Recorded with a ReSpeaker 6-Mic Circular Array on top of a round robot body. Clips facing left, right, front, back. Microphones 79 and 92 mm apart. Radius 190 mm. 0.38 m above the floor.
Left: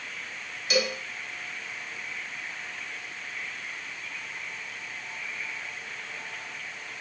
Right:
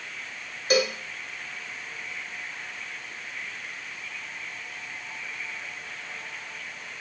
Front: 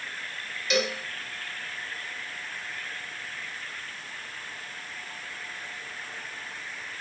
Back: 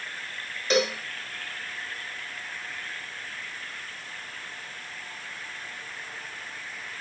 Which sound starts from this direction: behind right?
A cowbell, at 0.7 s.